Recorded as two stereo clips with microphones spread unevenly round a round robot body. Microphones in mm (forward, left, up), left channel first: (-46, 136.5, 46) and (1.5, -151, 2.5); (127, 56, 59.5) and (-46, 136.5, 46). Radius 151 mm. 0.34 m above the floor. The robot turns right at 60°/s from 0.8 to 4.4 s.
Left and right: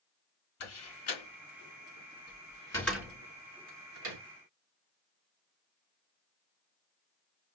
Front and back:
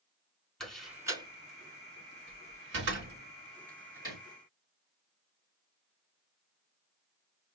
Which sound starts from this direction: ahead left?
A door slam, at 0.6 s.